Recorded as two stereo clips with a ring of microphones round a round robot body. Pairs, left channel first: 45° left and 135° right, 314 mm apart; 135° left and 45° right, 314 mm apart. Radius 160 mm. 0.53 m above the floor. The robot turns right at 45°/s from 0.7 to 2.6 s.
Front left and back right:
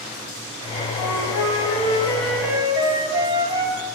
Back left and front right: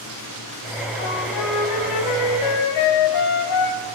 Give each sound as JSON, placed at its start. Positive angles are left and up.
{"t": 1.0, "sound": "a flute", "azimuth_deg": 75, "distance_m": 1.2}